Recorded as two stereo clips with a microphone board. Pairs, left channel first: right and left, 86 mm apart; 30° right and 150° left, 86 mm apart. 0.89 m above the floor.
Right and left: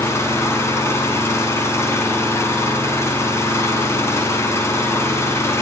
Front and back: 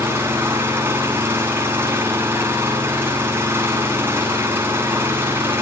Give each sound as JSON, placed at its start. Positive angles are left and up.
{"t": 0.0, "sound": "an engine running", "azimuth_deg": -145, "distance_m": 7.5}